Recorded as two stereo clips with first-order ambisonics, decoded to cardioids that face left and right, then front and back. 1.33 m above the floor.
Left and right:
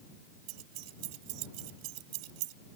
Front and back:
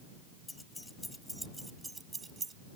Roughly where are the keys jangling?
Right.